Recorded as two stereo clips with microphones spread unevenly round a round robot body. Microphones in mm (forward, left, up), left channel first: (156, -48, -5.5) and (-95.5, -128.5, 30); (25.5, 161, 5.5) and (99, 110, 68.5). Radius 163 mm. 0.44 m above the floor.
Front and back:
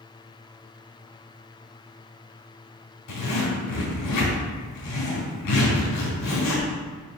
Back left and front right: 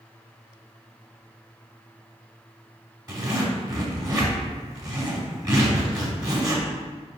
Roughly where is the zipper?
Ahead left.